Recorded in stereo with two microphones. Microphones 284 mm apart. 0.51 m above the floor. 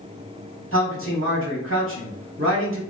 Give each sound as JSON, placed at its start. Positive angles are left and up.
{"t": 0.7, "sound": "a man speaking", "side_deg": -45, "distance_m": 1.4}